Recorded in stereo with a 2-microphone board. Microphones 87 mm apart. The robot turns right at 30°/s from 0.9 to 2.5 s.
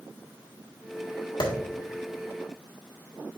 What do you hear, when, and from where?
1.4 s a clap: 60° left (ahead or behind), 1.7 m